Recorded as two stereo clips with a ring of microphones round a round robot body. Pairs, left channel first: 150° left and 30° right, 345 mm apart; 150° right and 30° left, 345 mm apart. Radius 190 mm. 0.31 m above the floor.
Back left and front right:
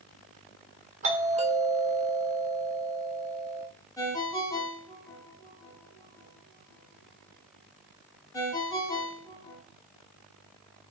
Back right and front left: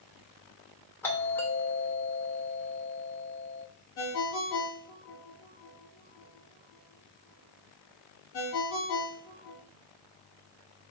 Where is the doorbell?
75° right, 1.4 m.